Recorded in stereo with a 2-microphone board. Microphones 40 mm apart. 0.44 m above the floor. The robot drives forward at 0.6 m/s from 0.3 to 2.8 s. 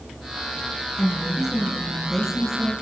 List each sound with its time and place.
1.0 s a woman speaking: 10° right (ahead or behind), 6.5 m